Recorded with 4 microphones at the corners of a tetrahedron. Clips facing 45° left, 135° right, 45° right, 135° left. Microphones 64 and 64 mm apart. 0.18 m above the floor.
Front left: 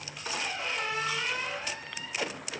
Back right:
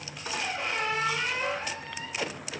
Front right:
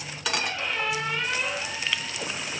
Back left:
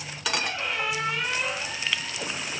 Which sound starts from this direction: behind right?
A squeak, at 0.3 s.